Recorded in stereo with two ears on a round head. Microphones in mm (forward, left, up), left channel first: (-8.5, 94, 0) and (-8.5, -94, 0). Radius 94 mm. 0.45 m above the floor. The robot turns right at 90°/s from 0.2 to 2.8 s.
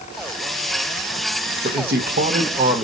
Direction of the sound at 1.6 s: 115° right.